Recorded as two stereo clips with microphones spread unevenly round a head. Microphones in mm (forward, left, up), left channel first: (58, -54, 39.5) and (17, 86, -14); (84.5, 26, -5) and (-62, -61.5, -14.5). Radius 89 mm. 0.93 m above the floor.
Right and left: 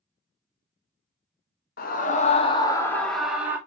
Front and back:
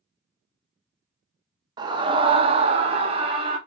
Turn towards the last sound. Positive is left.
turn(degrees=160)